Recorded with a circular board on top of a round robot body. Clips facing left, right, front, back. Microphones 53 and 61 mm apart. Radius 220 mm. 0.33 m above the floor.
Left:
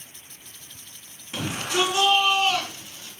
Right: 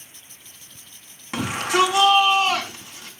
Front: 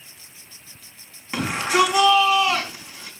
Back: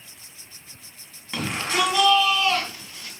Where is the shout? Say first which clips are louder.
Right 5 dB, front 5 dB; 70° right, 5 m.